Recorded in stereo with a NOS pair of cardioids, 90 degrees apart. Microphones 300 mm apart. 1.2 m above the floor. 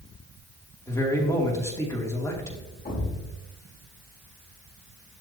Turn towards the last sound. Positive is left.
turn(degrees=30)